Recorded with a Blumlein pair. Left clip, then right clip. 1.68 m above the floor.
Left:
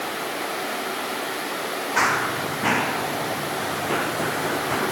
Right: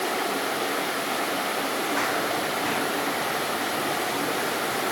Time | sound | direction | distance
2.0 | running footsteps | 60° left | ?